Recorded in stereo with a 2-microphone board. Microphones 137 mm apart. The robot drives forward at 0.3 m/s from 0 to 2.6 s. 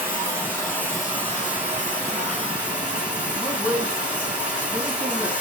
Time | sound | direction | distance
0.0 | running water | 20° right (ahead or behind) | 2 m
3.4 | a man speaking | 5° left (ahead or behind) | 3 m